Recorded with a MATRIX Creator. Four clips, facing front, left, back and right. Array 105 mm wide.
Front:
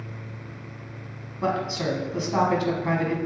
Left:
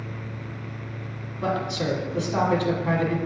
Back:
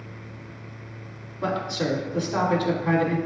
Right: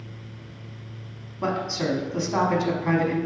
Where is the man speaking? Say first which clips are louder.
Even, front 1 dB; 60° right, 1.0 m.